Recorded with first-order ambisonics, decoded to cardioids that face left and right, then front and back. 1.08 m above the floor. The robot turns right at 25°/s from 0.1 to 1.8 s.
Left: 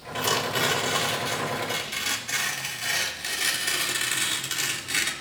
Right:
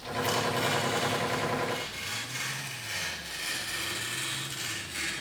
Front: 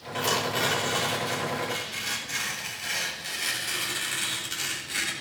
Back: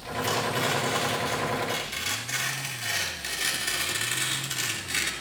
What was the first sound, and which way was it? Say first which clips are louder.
Tearing paper: left 4 dB, front 1 dB; 70° left.